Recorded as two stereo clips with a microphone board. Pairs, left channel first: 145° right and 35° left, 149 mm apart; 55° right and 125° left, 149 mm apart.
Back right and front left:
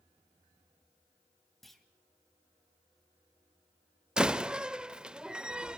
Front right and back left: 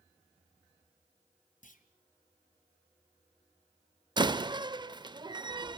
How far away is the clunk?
About 1.9 m.